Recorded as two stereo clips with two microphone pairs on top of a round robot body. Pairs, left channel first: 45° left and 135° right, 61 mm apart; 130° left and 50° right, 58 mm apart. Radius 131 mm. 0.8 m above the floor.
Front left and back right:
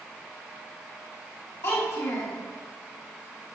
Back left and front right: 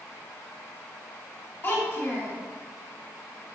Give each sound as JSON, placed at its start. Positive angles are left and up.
{"t": 1.6, "sound": "a child speaking", "azimuth_deg": 65, "distance_m": 2.0}